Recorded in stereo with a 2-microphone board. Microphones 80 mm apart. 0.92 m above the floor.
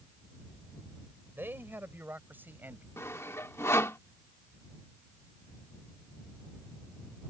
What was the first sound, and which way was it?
A man speaking, 25° right (ahead or behind).